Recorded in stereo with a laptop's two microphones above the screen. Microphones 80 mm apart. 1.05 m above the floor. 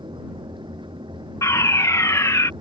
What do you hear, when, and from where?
0.0 s a fan: 75° right (ahead or behind)
1.4 s a fire alarm: 40° left (ahead or behind)